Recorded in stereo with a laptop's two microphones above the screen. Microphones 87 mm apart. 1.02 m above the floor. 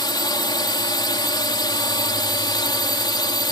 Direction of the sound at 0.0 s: 55° left (ahead or behind).